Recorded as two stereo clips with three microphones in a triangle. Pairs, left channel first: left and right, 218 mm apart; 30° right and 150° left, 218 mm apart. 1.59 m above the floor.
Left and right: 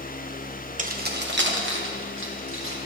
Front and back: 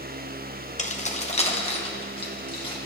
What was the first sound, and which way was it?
Keys jangling, 65° right.